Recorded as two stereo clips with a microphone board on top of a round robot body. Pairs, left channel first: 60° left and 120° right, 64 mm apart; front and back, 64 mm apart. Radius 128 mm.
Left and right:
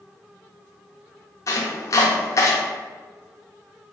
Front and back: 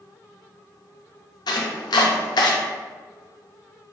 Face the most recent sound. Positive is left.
turn(degrees=10)